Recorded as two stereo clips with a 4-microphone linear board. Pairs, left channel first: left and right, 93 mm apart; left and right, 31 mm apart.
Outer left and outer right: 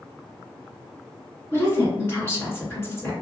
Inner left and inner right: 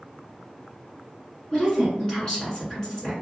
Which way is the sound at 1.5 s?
25° left (ahead or behind).